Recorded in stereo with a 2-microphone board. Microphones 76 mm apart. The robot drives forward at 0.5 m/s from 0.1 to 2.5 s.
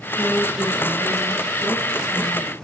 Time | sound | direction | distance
0.2 | a woman speaking | 5° left (ahead or behind) | 4 m